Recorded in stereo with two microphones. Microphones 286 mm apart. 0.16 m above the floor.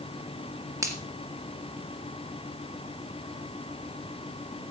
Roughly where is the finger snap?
Centre.